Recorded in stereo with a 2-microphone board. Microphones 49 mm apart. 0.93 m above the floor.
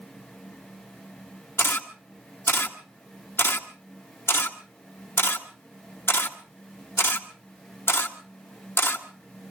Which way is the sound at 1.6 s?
55° left (ahead or behind).